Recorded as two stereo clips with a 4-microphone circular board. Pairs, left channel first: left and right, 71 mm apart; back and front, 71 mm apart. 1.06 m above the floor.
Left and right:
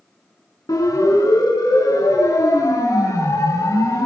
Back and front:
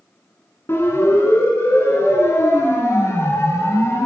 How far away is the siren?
About 8.5 m.